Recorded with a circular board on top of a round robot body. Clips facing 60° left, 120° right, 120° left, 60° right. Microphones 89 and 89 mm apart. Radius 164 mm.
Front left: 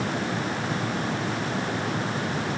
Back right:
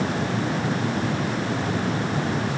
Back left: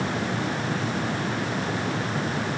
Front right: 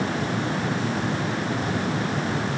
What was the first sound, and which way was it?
Only background noise.